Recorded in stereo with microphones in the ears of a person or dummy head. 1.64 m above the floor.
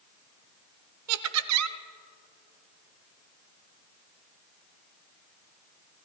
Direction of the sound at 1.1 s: 85° right.